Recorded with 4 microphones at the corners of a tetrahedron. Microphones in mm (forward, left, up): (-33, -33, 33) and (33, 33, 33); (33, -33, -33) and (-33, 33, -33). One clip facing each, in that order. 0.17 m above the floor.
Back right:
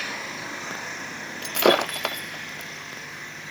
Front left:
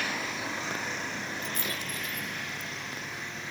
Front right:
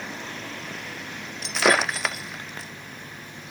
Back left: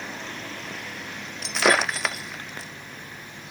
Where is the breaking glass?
135° right.